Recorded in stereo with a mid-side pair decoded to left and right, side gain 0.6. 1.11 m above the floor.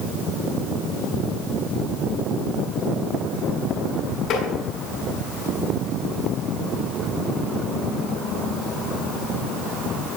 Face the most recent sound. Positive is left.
turn(degrees=65)